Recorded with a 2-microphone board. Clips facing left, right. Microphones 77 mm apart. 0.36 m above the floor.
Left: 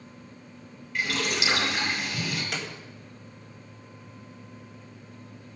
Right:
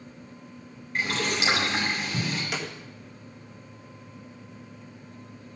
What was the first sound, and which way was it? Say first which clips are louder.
Boiling: right 1 dB; 30° right (ahead or behind).